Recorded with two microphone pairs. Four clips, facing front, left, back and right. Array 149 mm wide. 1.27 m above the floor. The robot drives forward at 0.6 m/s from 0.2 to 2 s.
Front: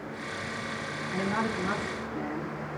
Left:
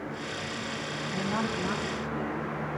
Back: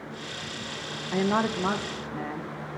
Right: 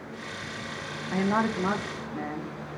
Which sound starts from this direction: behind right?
A woman speaking, at 1.1 s.